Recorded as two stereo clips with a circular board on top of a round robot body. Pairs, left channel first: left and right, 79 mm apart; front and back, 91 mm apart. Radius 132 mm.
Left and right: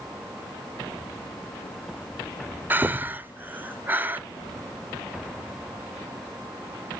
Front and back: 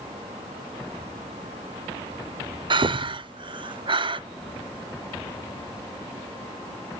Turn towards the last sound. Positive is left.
turn(degrees=-155)